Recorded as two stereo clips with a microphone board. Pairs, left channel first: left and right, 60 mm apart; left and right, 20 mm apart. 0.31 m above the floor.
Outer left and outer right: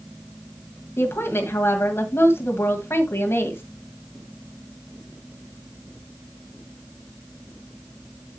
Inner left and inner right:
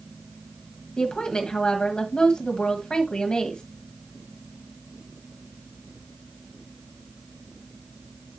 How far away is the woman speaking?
About 1.9 m.